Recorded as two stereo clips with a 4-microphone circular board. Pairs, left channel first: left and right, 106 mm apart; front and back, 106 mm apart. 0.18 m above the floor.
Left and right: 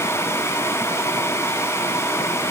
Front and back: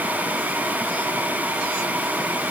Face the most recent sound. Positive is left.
No sound to turn to.